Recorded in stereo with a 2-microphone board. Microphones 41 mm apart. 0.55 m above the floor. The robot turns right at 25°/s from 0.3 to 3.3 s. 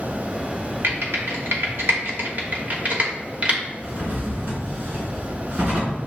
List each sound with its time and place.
0.8 s typing on a keyboard: 70° right (ahead or behind), 1.1 m; by 3.6 s 30° right (ahead or behind), 1.1 m
3.8 s a drawer: 40° right (ahead or behind), 1.8 m